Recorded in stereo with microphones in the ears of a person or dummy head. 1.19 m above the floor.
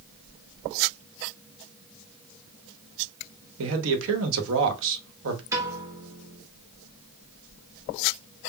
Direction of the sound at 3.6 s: 80° right.